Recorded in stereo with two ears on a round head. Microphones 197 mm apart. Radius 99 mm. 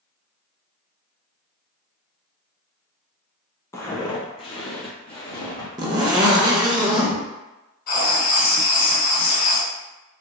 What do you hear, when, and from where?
3.7 s footsteps: 15° left (ahead or behind), 1.0 m; by 5.7 s 25° left (ahead or behind), 1.8 m
5.8 s a zipper: 20° right (ahead or behind), 0.7 m
7.9 s writing: 45° left (ahead or behind), 1.6 m